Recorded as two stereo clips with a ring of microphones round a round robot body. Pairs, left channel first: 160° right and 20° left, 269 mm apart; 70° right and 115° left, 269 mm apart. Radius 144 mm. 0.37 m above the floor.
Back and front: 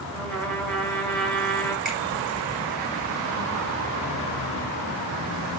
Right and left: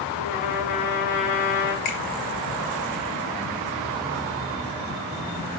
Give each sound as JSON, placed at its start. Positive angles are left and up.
{"t": 0.1, "sound": "a trumpet", "azimuth_deg": -70, "distance_m": 4.5}
{"t": 1.9, "sound": "a finger snap", "azimuth_deg": -65, "distance_m": 6.0}